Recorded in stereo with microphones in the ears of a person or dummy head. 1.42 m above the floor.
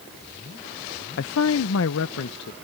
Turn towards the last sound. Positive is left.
turn(degrees=65)  # may be behind; listen again after turning